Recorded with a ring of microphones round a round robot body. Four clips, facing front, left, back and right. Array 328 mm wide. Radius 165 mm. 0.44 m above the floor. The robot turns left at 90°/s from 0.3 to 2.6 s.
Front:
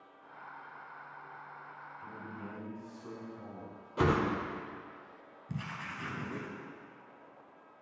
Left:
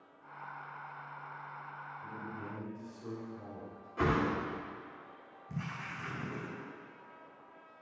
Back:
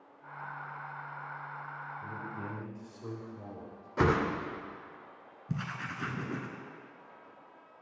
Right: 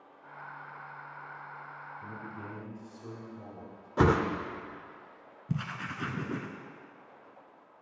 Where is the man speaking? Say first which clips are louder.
Even, back 2 dB; 125° right, 2.5 m; by 3.9 s straight behind, 2.5 m.